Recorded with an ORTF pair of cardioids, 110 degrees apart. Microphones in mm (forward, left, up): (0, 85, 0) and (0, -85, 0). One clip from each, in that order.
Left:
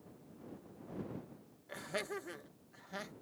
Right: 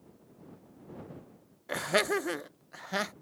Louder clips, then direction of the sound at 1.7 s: Right 13 dB; 65° right.